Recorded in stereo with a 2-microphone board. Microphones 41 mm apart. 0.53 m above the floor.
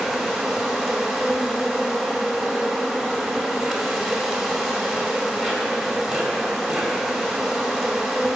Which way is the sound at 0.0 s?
Centre (ahead or behind).